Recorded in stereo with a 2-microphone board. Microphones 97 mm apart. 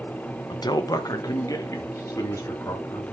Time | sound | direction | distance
0.5 | a man speaking | 45° left (ahead or behind) | 1.2 m